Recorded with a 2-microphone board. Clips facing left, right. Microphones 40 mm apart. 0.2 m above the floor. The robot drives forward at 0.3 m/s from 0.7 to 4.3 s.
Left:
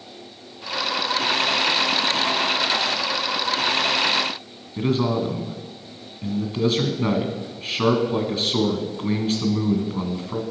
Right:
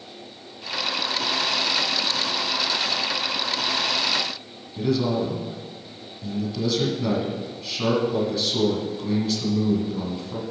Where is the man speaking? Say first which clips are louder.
Left 1 dB; 35° left (ahead or behind), 1.8 m.